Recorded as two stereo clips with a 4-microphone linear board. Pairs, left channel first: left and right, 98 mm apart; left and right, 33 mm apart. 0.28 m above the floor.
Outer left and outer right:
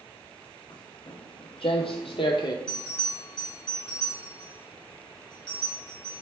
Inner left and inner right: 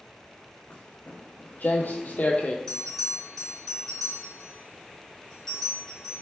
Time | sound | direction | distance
0.7 | footsteps | 45° left (ahead or behind) | 1.1 m
2.7 | a bell | 10° left (ahead or behind) | 1.4 m